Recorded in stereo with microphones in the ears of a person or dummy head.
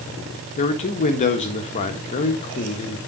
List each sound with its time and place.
0.6 s a man speaking: 40° left (ahead or behind), 1.4 m